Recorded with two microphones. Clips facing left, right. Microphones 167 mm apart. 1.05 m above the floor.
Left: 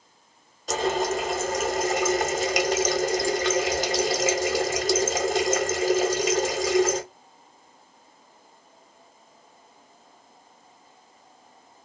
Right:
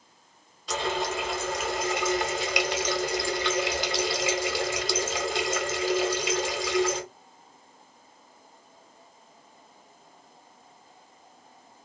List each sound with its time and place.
0.7 s a running tap: 45° left (ahead or behind), 0.6 m